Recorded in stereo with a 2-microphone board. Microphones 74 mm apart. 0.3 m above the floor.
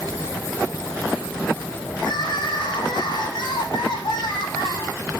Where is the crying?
80° left, 6 m.